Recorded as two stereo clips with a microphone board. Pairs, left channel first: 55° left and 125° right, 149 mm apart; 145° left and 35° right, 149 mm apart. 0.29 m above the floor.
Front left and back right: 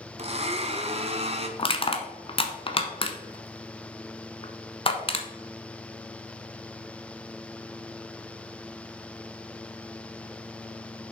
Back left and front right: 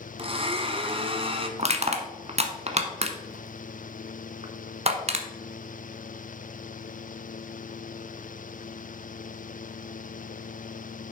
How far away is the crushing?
About 1.1 m.